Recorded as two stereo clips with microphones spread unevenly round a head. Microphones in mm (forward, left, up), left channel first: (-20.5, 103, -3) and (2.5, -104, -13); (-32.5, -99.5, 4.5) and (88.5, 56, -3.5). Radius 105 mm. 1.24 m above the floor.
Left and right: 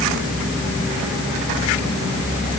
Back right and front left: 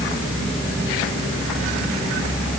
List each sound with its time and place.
Only background noise.